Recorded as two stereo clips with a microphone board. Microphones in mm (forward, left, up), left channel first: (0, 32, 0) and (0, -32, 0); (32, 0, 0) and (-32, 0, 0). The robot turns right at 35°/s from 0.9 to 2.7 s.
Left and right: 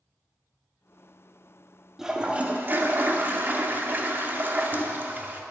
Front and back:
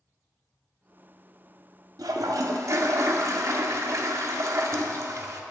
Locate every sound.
2.0 s a toilet flushing: 170° right, 0.6 m; by 5.4 s 145° right, 0.6 m